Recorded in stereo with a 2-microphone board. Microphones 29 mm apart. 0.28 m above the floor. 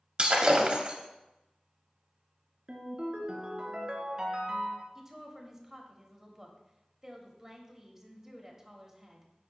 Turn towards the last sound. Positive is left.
turn(degrees=-15)  # may be behind; listen again after turning